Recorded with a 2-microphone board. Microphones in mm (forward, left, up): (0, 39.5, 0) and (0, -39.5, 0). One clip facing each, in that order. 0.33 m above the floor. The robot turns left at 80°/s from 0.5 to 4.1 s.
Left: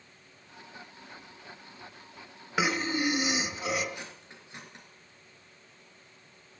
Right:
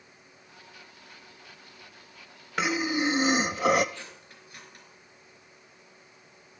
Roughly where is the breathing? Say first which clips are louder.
Right 1 dB; ahead.